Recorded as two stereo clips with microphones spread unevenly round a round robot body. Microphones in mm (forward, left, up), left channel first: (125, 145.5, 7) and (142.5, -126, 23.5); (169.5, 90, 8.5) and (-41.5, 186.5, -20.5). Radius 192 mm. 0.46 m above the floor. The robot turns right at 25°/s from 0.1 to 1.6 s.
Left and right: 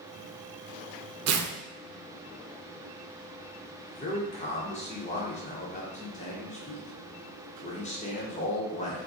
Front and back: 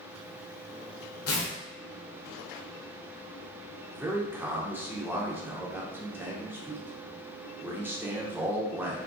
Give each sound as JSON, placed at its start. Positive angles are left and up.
{"t": 1.3, "sound": "tearing paper", "azimuth_deg": -60, "distance_m": 0.7}
{"t": 3.9, "sound": "a man speaking", "azimuth_deg": 95, "distance_m": 1.0}